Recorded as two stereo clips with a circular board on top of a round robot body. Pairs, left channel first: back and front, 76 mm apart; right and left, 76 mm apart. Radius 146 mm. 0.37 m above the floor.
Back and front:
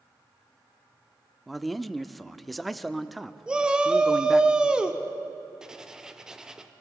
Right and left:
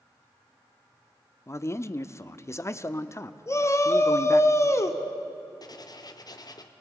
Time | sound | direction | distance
1.5 | a man speaking | 90° right | 0.9 m
3.5 | a shout | 70° right | 1.7 m
5.6 | writing | 80° right | 1.2 m